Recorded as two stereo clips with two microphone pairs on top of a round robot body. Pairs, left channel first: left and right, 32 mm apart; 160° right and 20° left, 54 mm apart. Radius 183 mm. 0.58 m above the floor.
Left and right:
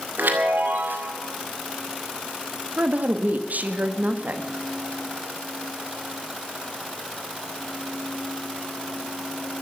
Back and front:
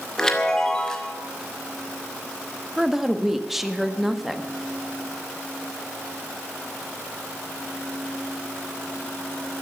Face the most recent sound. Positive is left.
turn(degrees=-65)